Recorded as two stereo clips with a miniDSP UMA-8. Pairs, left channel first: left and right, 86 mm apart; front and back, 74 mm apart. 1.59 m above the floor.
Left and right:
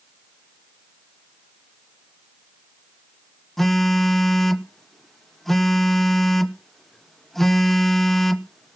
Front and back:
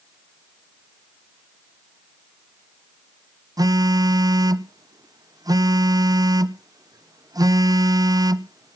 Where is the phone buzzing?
175° left, 0.6 m.